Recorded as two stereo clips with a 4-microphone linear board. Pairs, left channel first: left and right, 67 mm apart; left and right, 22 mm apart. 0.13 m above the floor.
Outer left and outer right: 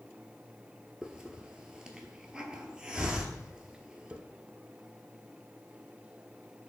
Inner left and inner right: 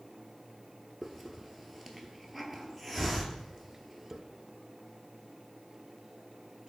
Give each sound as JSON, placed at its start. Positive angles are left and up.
{"t": 1.0, "sound": "a hiss", "side_deg": -10, "distance_m": 0.7}